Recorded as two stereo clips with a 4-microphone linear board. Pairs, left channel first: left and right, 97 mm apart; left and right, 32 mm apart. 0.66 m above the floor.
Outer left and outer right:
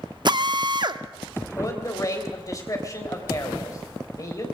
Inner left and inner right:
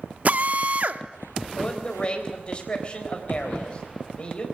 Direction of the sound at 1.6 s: 35° left (ahead or behind).